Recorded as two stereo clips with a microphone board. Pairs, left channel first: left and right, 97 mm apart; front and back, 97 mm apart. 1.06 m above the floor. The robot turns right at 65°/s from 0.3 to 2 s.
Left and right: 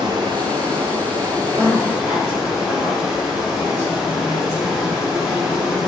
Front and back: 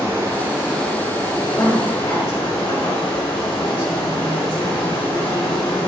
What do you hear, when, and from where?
0.0 s running water: 120° right, 2.5 m; by 5.9 s 10° right, 2.5 m
1.6 s a woman speaking: 60° right, 2.5 m; by 5.9 s 30° right, 2.5 m